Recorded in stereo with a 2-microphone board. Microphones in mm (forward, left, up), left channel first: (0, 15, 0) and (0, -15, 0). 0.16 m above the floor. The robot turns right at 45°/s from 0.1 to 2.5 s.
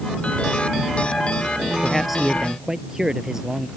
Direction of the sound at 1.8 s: 170° left.